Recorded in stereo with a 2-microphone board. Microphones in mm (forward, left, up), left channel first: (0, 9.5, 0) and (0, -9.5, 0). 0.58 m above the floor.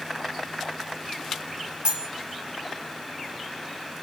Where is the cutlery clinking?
55° right (ahead or behind), 0.7 m.